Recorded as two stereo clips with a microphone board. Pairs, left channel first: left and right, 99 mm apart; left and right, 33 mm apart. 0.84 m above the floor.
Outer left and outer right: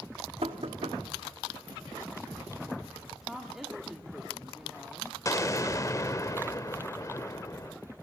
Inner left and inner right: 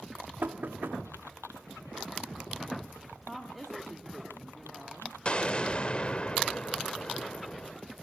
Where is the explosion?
35° left (ahead or behind), 0.7 m.